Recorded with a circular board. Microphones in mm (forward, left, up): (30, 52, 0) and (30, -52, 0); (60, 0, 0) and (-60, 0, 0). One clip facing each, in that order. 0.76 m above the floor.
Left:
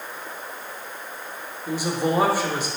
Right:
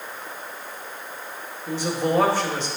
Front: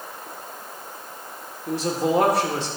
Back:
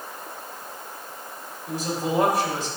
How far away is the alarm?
No alarm in this recording.